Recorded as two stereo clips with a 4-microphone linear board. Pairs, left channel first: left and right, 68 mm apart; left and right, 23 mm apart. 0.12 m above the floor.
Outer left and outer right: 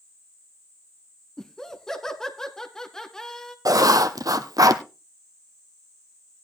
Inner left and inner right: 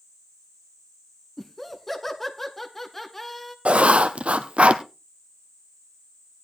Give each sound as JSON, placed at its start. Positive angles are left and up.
{"t": 1.4, "sound": "laughter", "side_deg": 10, "distance_m": 1.3}
{"t": 3.6, "sound": "writing", "side_deg": -75, "distance_m": 0.9}